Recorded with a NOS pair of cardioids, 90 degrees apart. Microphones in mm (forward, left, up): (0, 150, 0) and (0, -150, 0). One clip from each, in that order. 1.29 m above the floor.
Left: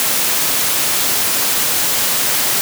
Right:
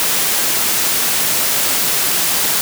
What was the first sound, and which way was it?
Only background noise.